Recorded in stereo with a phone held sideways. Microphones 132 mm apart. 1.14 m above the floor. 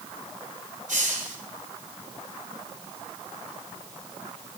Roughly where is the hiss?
Right.